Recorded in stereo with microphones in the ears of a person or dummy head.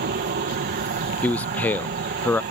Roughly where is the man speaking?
Centre.